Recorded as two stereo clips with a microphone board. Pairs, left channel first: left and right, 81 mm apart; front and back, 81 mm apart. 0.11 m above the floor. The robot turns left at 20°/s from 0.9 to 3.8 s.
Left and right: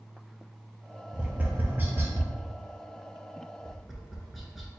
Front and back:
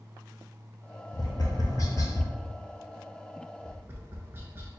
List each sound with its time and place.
1.1 s tapping: 15° right, 0.8 m; by 2.3 s 40° right, 0.8 m
3.6 s tapping: 175° right, 0.7 m; by 4.7 s straight behind, 0.7 m